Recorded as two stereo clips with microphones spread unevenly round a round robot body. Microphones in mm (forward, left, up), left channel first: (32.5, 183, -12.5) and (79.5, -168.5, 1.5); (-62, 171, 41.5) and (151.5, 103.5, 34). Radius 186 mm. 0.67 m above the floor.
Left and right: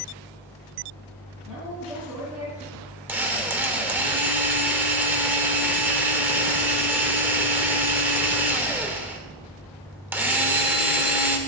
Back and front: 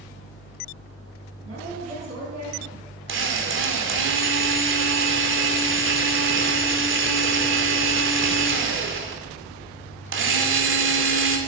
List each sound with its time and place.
1.4 s a woman speaking: 5° left, 7 m
3.1 s a drill: 5° left, 2.5 m